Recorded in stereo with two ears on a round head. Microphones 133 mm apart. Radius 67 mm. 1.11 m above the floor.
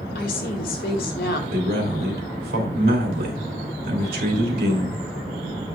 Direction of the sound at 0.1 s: 75° left (ahead or behind).